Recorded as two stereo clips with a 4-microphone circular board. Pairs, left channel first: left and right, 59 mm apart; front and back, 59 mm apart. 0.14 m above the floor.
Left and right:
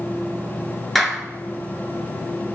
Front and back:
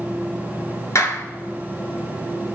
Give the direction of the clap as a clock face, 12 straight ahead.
12 o'clock.